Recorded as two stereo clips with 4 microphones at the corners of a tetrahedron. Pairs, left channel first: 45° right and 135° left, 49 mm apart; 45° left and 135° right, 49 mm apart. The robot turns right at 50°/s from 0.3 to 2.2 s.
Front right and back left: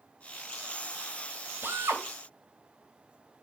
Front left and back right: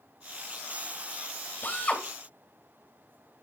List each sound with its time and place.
1.6 s a drill: 95° left, 3 m; by 2.0 s 115° left, 3 m